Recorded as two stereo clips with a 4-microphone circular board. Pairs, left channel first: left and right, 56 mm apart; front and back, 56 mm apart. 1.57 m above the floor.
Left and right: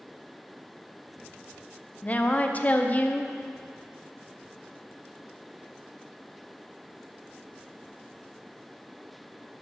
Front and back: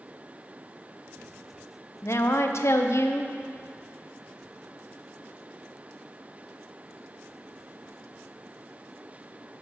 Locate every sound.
2.0 s a woman speaking: 30° left, 0.7 m